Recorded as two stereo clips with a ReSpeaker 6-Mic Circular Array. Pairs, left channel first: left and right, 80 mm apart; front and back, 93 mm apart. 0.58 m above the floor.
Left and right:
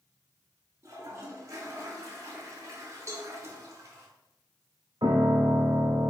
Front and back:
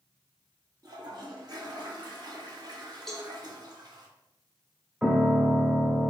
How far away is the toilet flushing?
About 0.7 m.